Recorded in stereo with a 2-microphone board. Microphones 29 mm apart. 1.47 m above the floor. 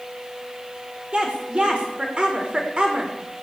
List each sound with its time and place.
1.1 s a woman speaking: 35° right (ahead or behind), 6 m